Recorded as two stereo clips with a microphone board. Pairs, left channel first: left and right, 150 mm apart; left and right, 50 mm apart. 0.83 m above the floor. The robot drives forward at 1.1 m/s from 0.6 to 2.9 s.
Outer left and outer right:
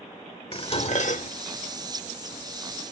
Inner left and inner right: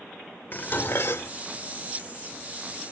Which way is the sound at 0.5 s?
40° left (ahead or behind).